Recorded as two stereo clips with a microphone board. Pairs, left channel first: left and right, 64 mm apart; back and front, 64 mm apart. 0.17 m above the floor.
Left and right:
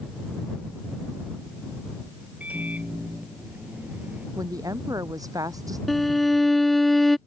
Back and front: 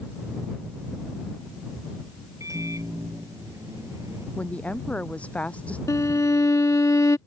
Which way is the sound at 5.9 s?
175° left.